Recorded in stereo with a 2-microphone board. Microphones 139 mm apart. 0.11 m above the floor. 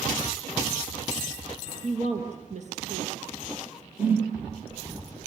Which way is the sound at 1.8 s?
60° right (ahead or behind).